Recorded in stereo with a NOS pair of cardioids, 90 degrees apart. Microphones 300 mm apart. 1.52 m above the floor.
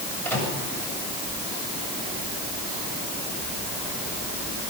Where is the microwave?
5° left, 7 m.